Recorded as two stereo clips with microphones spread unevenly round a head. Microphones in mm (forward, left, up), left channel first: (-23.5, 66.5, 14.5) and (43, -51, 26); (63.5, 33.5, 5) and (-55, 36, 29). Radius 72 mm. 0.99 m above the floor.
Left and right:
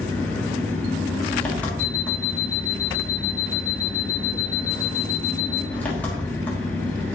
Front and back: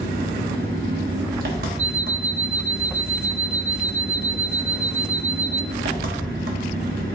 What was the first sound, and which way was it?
An engine running, 160° right.